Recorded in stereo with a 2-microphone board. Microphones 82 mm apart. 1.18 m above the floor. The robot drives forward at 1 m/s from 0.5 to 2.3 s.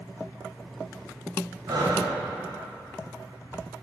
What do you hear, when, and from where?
1.7 s breathing: 60° right (ahead or behind), 1.8 m; by 2.1 s 65° right (ahead or behind), 1.8 m